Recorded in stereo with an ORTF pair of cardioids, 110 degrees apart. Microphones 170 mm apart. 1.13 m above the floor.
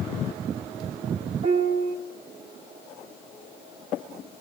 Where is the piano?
35° right, 3 m.